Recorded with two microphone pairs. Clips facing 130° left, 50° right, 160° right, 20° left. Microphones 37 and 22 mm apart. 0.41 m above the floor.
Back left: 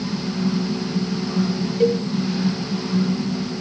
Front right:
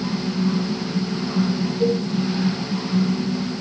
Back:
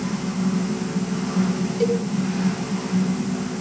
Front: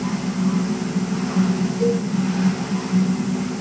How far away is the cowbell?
About 1.7 m.